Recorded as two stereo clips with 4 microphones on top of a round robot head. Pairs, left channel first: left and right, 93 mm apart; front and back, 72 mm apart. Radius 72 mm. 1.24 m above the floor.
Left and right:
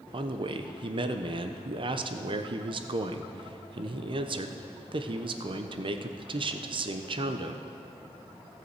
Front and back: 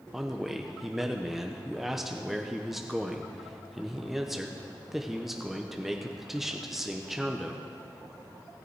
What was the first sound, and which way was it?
A man speaking, 90° right.